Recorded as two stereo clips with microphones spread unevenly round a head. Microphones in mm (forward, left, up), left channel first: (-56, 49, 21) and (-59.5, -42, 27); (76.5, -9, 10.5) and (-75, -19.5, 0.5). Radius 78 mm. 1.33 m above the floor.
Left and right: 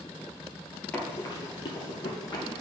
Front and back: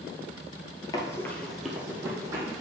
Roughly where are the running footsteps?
Ahead.